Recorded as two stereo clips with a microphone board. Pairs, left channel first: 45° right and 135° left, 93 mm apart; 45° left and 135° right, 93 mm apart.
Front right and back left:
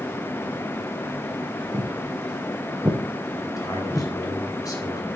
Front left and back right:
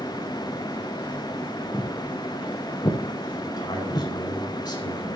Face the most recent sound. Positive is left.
turn(degrees=5)